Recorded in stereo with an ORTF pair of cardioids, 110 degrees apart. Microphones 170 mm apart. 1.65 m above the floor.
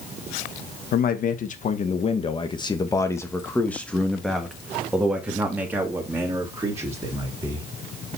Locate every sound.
0.9 s a man speaking: 60° left, 1.7 m; by 7.7 s 20° right, 4 m